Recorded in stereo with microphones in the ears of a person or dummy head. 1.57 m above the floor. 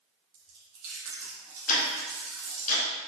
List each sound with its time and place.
0.3 s chewing: 70° right (ahead or behind), 1.3 m
1.7 s ticking: 45° left (ahead or behind), 0.8 m